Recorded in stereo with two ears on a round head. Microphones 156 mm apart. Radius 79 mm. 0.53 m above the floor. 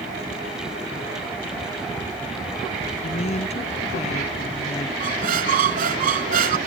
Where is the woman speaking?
40° left (ahead or behind).